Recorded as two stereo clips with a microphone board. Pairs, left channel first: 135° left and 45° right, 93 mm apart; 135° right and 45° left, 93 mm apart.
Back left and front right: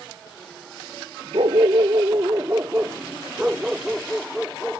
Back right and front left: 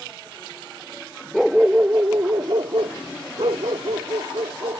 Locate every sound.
1.3 s a dog barking: 45° right; by 4.8 s 40° left